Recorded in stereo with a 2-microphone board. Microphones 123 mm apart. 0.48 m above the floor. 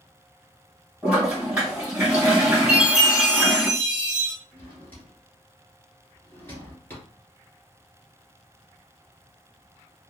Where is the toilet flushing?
10° right (ahead or behind), 2.0 m.